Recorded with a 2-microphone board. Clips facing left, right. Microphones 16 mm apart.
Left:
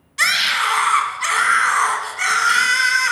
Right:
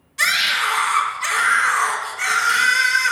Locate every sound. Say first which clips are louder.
0.2 s a scream: left 1 dB; 25° left (ahead or behind), 1.1 m